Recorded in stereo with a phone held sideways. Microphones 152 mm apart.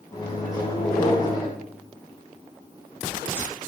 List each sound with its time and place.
0.1 s a microwave: 25° left (ahead or behind), 0.7 m